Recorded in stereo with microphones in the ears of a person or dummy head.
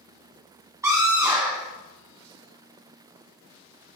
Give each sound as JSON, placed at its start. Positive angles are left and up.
{"t": 0.8, "sound": "a scream", "side_deg": -15, "distance_m": 1.3}